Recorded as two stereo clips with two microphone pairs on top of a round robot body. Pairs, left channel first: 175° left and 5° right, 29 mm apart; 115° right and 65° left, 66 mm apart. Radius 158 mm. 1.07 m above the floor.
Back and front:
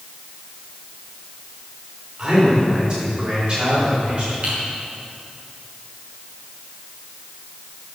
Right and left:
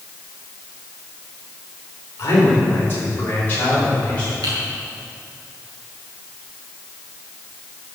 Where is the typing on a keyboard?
40° left, 2.5 m.